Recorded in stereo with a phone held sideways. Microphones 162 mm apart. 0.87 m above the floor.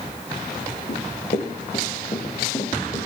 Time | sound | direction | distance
0.9 | running footsteps | 55° left (ahead or behind) | 5 m